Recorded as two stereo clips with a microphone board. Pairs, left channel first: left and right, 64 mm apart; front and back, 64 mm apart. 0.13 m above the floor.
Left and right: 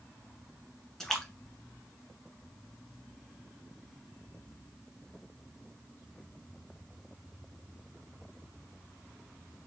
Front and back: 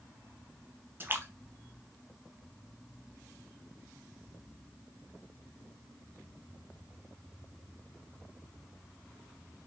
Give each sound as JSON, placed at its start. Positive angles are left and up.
{"t": 1.0, "sound": "a splash", "azimuth_deg": 170, "distance_m": 0.9}